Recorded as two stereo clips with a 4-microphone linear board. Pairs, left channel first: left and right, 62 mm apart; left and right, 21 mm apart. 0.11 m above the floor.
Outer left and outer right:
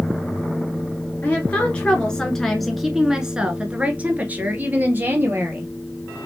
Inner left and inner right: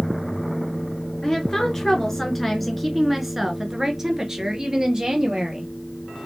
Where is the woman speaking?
25° left (ahead or behind), 1.4 m; by 5.7 s 30° right (ahead or behind), 2 m.